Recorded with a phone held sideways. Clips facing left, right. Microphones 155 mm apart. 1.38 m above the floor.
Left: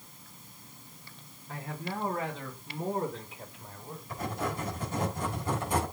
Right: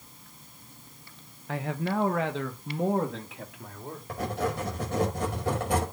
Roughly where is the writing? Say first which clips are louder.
Right 4 dB; right.